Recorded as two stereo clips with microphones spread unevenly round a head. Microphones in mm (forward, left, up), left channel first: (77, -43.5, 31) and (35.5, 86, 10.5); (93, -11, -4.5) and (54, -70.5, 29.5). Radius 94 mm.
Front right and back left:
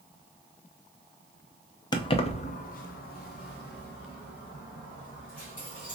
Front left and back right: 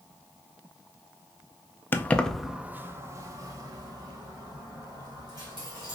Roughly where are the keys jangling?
Ahead.